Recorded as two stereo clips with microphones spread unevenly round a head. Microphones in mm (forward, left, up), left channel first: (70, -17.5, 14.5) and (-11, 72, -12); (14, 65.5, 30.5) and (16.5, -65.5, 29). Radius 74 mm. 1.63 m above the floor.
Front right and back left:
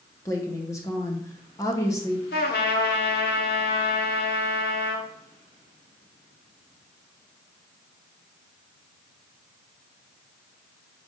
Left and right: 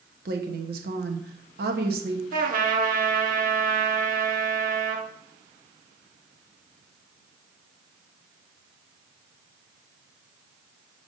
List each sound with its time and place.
0.2 s a woman speaking: 110° right, 1.0 m
2.3 s a trumpet: 70° right, 1.2 m